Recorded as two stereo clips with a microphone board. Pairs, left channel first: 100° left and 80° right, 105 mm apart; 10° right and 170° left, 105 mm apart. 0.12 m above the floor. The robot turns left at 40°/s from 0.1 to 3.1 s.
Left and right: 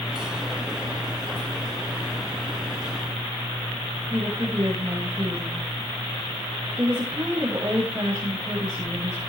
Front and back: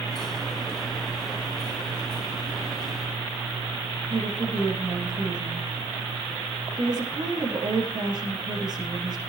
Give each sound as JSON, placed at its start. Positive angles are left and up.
{"t": 4.1, "sound": "a woman speaking", "azimuth_deg": -140, "distance_m": 8.0}